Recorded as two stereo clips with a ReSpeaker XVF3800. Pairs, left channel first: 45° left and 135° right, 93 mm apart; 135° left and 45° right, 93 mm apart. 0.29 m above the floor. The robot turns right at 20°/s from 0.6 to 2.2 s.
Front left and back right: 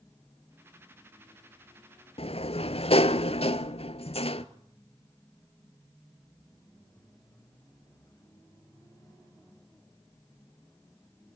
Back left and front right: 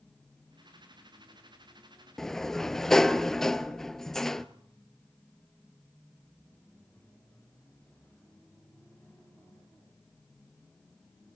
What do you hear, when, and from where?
2.2 s a sliding door: 50° left, 1.0 m